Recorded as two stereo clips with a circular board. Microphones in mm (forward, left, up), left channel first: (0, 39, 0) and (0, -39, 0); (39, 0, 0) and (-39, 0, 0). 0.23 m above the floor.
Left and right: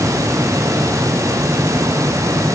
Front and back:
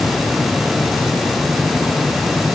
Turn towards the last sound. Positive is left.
No sound to turn to.